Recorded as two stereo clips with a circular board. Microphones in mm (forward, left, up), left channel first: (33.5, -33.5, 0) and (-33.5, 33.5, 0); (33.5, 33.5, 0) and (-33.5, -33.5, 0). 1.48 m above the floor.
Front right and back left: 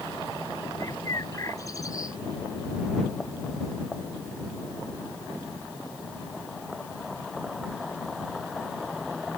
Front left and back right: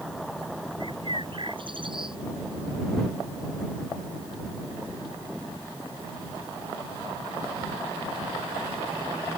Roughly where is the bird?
Right.